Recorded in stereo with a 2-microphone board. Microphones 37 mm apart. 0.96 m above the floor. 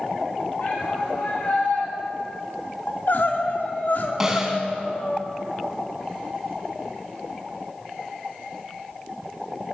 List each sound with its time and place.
0.6 s a shout: 55° left (ahead or behind), 7.5 m; by 1.9 s 50° left (ahead or behind), 7 m
2.9 s crying: 60° left (ahead or behind), 2.5 m
4.2 s a snare drum: 15° right (ahead or behind), 3.5 m